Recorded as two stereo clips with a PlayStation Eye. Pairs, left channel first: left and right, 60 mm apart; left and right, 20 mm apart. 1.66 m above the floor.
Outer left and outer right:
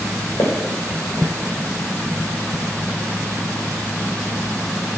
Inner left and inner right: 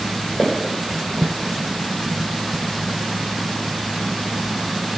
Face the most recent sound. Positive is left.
turn(degrees=70)  # may be behind; listen again after turning